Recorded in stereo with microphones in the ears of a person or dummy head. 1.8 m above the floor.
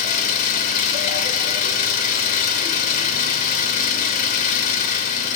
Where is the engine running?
45° left (ahead or behind), 3 m.